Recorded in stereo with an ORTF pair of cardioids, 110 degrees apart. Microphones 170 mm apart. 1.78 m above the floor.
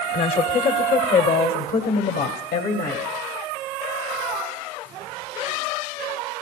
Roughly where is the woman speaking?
Ahead left.